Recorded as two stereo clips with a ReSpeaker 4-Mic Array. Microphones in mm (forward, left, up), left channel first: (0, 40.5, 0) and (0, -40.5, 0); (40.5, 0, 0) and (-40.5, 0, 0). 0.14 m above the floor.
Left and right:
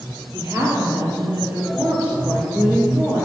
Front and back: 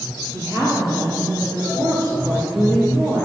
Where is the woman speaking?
140° right, 2.5 m; by 3.2 s 175° right, 3 m.